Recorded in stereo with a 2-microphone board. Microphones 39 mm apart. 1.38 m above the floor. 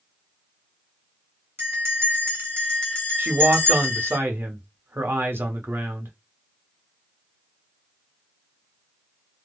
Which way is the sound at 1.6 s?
70° right (ahead or behind).